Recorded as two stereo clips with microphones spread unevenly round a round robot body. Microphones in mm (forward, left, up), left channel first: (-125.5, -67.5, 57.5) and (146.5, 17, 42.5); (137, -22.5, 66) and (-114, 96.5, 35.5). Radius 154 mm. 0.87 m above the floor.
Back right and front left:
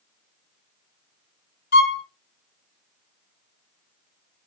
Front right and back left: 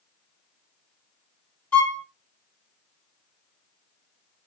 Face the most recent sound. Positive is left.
turn(degrees=-110)